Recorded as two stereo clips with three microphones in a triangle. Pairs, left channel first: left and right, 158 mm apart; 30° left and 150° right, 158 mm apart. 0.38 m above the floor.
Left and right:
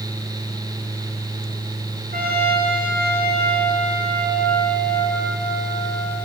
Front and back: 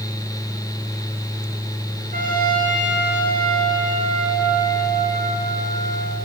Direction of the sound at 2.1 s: 115° right.